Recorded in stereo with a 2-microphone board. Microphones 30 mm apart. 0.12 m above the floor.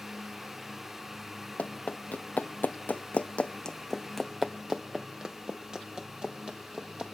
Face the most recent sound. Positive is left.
turn(degrees=-35)  # may be behind; listen again after turning